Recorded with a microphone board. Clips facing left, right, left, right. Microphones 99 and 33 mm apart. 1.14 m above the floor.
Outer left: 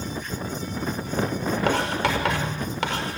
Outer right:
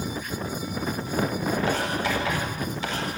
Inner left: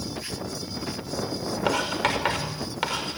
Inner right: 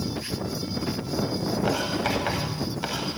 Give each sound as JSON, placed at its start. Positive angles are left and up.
{"t": 1.7, "sound": "writing", "side_deg": 75, "distance_m": 5.0}